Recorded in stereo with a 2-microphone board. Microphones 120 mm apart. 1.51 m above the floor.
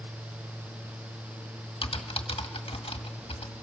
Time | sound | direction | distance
1.8 | typing on a keyboard | 50° left (ahead or behind) | 1.6 m